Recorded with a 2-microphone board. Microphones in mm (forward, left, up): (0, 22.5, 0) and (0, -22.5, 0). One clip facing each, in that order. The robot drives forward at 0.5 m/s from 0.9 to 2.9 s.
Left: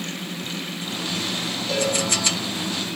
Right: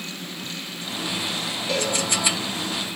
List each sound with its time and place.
1.7 s a cowbell: 5° right (ahead or behind), 1.7 m